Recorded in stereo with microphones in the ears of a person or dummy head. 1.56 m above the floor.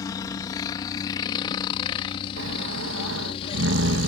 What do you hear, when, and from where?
0.0 s a helicopter: 25° left (ahead or behind); by 4.1 s 35° left (ahead or behind)
2.4 s snoring: 85° right